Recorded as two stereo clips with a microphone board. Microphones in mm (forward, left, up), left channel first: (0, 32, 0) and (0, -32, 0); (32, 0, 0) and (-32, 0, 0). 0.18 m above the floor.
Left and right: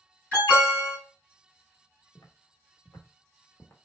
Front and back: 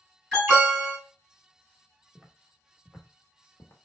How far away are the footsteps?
About 0.9 m.